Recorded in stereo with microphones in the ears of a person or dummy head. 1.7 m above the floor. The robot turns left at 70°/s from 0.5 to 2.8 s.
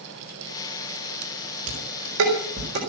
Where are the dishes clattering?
40° right (ahead or behind), 5 m; by 2.8 s 60° right (ahead or behind), 5 m.